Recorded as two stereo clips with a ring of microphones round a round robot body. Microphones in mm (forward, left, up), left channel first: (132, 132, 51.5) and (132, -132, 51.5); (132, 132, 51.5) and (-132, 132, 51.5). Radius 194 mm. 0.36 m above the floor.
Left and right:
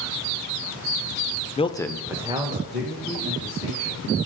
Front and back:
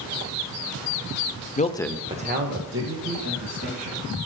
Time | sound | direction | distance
1.6 | a man speaking | 35° left | 1.0 m